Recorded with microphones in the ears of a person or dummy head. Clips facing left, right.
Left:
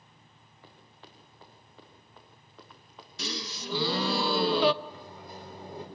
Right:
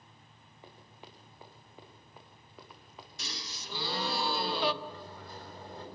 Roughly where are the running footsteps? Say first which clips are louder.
Right 2 dB; centre.